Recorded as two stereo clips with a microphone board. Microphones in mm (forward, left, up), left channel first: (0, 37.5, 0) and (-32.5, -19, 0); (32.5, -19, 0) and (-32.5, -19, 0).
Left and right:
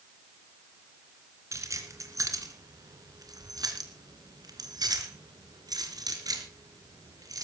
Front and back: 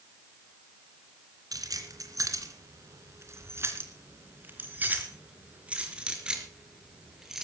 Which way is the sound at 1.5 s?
160° right.